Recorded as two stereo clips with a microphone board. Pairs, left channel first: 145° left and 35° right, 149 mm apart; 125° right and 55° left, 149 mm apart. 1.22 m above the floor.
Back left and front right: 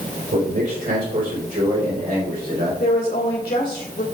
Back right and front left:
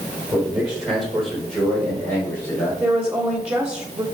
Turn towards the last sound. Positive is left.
turn(degrees=135)